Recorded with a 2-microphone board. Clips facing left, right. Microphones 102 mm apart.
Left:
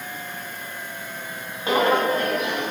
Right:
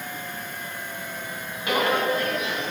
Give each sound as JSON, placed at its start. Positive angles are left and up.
{"t": 1.7, "sound": "footsteps", "side_deg": 30, "distance_m": 2.0}